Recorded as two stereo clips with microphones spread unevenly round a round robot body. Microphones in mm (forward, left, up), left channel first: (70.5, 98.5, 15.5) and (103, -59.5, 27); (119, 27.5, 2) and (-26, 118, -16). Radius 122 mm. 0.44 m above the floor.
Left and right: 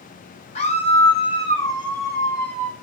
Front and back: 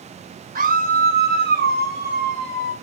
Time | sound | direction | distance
0.6 | a scream | 140° left | 1.3 m